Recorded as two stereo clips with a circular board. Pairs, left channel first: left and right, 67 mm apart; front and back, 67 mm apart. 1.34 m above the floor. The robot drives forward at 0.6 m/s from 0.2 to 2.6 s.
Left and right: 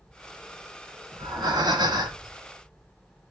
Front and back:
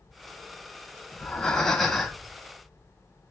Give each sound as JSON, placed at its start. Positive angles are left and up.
{"t": 1.1, "sound": "breathing", "azimuth_deg": -75, "distance_m": 2.0}